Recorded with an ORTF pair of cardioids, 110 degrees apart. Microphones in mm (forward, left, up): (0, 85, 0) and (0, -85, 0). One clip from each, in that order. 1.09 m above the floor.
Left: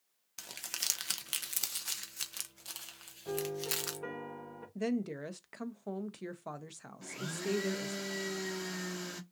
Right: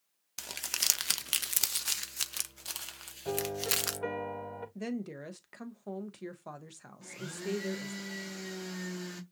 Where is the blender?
20° left, 0.9 m.